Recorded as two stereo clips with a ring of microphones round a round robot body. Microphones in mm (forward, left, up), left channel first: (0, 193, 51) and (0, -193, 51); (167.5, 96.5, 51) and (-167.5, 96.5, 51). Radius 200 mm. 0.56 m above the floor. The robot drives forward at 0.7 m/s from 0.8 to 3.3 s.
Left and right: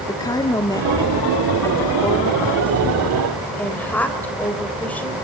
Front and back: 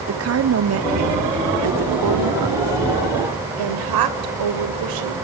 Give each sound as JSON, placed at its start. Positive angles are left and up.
{"t": 0.1, "sound": "a woman speaking", "azimuth_deg": 165, "distance_m": 1.2}